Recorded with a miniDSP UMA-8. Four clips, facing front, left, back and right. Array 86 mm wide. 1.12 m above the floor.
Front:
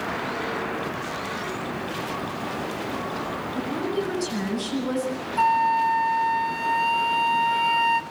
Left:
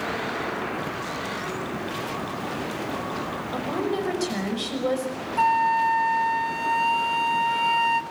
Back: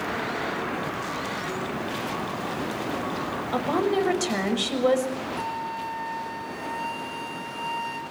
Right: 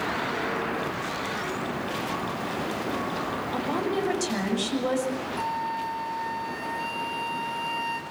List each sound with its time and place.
3.5 s a woman speaking: 170° left, 6.5 m
5.4 s a flute: 50° left, 1.8 m